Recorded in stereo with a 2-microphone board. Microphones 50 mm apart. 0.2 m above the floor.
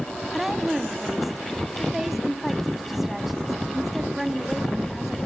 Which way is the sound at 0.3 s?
5° right (ahead or behind).